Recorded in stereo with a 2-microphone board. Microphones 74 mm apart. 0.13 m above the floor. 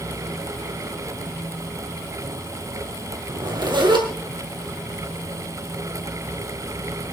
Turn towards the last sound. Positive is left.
turn(degrees=-65)  # may be behind; listen again after turning